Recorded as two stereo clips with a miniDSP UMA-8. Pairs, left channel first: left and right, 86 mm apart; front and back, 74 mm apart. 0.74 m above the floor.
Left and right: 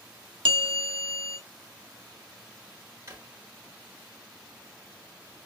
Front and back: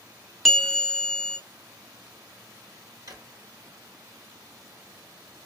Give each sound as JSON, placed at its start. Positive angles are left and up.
{"t": 0.5, "sound": "a bell", "azimuth_deg": -85, "distance_m": 0.7}
{"t": 3.1, "sound": "a drawer", "azimuth_deg": -150, "distance_m": 1.4}